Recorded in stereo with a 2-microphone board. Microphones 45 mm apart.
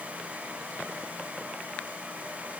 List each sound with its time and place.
Only background noise.